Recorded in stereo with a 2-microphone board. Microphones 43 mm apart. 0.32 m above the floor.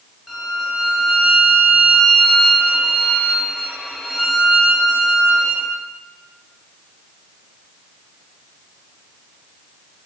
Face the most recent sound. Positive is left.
turn(degrees=-5)  # may be behind; listen again after turning